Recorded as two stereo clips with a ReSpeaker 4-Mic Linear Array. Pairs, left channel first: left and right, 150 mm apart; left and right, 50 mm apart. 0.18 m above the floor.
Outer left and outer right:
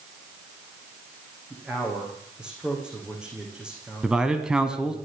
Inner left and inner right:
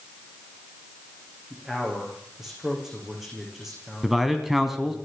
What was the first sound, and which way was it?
A man speaking, 5° right (ahead or behind).